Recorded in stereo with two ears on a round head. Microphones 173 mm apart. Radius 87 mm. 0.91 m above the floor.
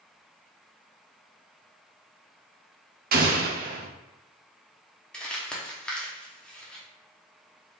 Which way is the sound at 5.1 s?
5° left (ahead or behind).